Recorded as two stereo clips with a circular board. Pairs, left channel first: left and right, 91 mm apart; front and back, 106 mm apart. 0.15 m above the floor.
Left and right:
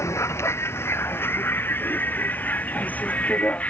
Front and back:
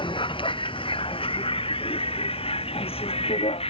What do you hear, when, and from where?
0.0 s a vehicle: 35° left; by 3.7 s 15° left